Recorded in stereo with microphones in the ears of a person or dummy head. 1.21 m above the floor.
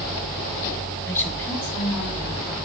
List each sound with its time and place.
1.1 s a woman speaking: 15° left (ahead or behind), 1.3 m; by 2.5 s 10° left (ahead or behind), 3 m